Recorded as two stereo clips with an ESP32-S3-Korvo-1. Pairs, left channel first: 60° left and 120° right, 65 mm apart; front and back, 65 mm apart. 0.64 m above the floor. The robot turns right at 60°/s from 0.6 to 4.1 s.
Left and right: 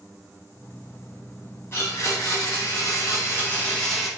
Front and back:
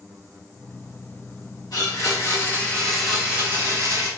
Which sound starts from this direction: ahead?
A blender, at 1.7 s.